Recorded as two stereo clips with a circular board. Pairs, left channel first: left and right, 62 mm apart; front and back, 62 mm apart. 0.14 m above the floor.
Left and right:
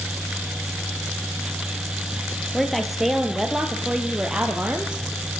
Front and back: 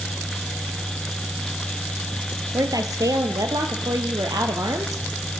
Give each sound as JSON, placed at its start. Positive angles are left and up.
{"t": 2.5, "sound": "a woman speaking", "azimuth_deg": 180, "distance_m": 3.5}